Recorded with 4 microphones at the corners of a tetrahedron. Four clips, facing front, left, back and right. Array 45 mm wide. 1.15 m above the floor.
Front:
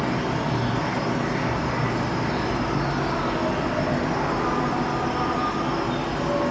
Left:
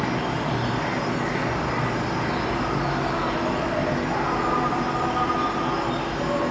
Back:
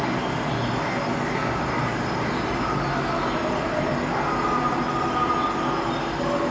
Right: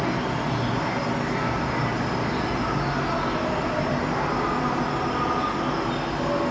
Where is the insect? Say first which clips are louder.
Even, even; 125° left, 0.8 m.